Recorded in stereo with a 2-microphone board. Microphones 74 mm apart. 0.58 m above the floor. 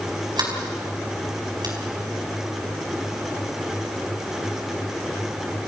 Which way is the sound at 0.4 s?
65° right (ahead or behind).